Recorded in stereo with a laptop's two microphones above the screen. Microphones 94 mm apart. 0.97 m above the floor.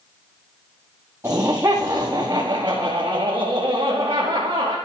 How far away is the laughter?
About 1.9 m.